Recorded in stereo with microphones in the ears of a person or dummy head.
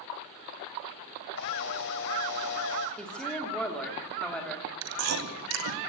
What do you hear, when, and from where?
1.3 s a camera shutter: 55° left (ahead or behind), 1.9 m
3.0 s a woman speaking: 5° left (ahead or behind), 3 m
4.8 s chewing: 85° right, 2.5 m